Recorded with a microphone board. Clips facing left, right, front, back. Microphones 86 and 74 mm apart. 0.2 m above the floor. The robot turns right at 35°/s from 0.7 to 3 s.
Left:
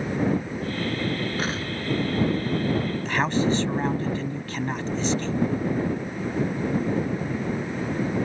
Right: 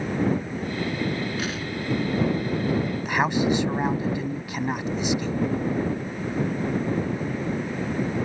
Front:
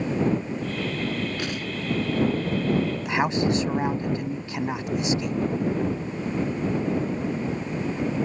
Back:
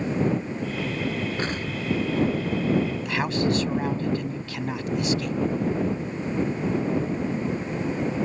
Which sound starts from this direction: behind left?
An explosion, at 1.4 s.